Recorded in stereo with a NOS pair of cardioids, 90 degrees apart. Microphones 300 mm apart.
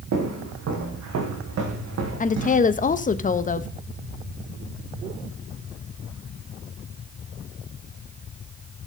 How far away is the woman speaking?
About 0.9 m.